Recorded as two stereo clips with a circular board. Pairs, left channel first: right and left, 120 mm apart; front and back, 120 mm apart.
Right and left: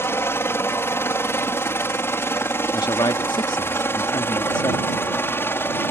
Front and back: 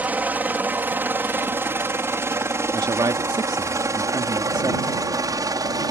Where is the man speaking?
135° right.